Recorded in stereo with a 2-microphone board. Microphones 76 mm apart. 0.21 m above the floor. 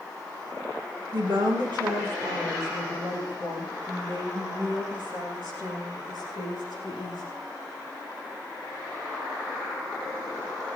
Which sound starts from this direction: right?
A woman speaking, at 1.1 s.